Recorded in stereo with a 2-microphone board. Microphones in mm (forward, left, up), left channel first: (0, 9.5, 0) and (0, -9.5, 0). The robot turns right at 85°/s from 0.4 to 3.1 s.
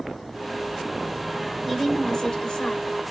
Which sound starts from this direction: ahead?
A woman speaking, at 1.6 s.